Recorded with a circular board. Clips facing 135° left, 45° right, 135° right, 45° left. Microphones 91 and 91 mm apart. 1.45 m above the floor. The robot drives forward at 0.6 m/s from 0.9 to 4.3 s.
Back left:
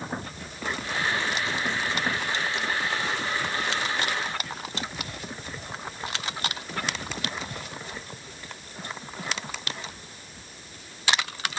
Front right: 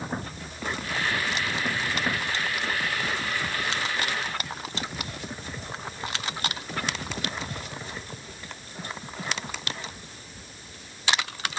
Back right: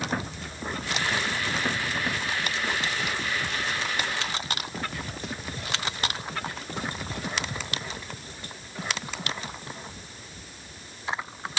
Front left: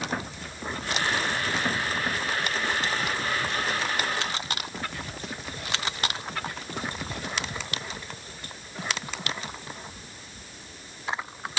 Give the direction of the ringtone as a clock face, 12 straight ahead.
No ringtone in this recording.